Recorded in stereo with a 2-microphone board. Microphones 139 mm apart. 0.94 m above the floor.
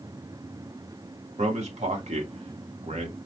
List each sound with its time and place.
1.4 s a man speaking: 55° right (ahead or behind), 1.2 m